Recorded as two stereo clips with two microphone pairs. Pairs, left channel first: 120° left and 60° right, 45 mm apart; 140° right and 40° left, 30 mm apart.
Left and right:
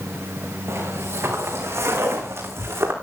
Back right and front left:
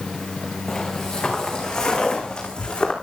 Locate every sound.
0.7 s footsteps: 60° right, 5 m; by 2.9 s 80° right, 4.5 m